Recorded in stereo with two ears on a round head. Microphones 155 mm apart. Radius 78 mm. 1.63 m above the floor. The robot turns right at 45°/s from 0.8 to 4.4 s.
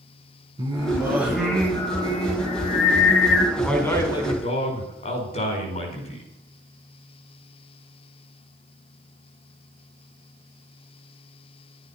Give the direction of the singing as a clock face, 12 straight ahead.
1 o'clock.